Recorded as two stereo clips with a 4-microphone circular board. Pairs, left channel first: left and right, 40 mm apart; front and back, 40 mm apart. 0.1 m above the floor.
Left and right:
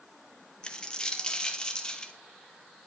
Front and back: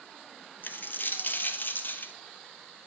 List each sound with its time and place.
0.6 s a dropped coin: 25° left, 0.9 m